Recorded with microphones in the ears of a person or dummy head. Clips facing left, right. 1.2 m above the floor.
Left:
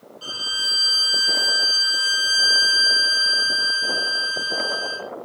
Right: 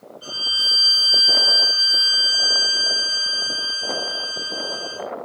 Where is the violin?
65° left (ahead or behind), 1.5 m.